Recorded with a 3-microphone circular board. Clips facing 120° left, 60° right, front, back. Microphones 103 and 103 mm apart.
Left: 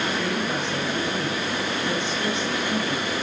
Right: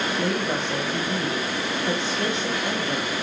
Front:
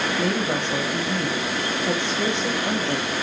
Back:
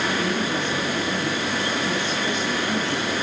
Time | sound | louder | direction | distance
0.2 | a woman speaking | right 1 dB, front 1 dB | 5° right | 3 m